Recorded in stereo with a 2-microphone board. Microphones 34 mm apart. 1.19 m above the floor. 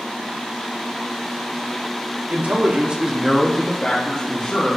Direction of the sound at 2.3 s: 55° right (ahead or behind).